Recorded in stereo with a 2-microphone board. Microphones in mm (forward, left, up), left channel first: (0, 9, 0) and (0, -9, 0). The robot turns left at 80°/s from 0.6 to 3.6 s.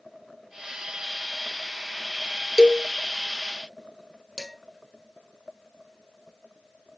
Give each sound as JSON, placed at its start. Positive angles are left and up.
{"t": 2.6, "sound": "a cowbell", "side_deg": 50, "distance_m": 0.5}
{"t": 4.4, "sound": "dishes clattering", "side_deg": -20, "distance_m": 2.5}